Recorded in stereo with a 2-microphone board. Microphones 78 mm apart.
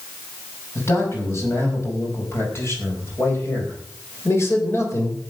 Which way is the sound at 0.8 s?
35° left (ahead or behind).